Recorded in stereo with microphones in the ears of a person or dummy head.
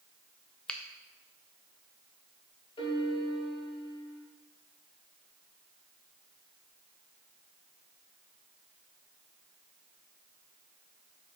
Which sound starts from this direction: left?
A piano, at 2.8 s.